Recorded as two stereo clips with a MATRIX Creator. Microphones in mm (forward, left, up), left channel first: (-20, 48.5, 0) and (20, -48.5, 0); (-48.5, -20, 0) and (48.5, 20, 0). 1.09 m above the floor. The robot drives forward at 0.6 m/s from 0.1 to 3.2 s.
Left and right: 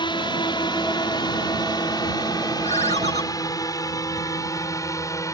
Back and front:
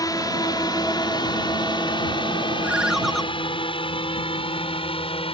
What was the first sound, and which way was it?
A drone, 150° left.